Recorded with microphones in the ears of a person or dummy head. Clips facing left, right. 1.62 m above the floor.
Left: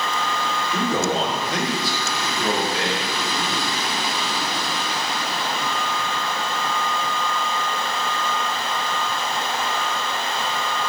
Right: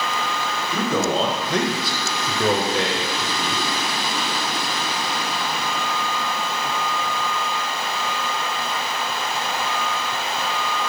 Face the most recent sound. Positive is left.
turn(degrees=15)  # may be behind; listen again after turning